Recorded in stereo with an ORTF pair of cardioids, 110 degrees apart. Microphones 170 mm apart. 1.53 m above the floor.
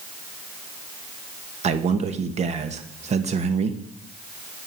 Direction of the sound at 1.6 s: 40° right.